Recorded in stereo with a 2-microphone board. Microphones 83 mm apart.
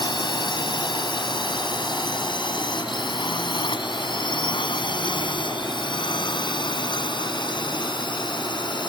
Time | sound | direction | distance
0.0 | a drone | 70° left (ahead or behind) | ?